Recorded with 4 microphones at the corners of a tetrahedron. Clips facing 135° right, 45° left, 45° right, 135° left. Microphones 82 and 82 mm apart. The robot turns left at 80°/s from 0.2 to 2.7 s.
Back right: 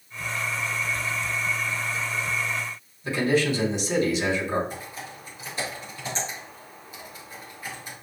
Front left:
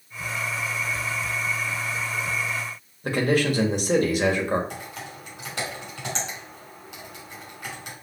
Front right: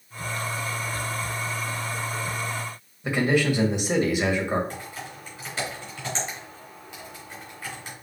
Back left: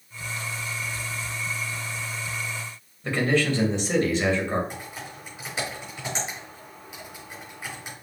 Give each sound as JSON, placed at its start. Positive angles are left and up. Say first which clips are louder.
{"t": 3.0, "sound": "a man speaking", "louder": "front left 1 dB, front right 1 dB", "azimuth_deg": 30, "distance_m": 1.9}
{"t": 4.7, "sound": "typing on a keyboard", "louder": "front left 1 dB, front right 1 dB", "azimuth_deg": 60, "distance_m": 4.0}